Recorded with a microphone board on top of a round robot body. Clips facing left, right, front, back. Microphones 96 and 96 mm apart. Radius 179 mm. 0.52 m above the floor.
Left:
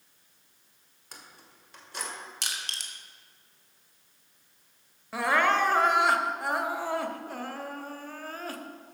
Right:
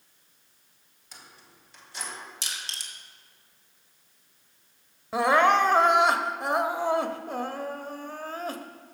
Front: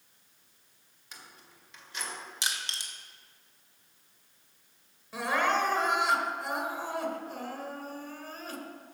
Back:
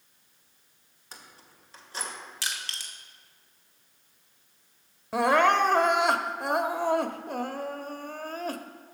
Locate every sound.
1.1 s keys jangling: 125° left, 1.9 m
2.4 s crushing: 70° left, 2 m
5.1 s crying: 160° right, 0.9 m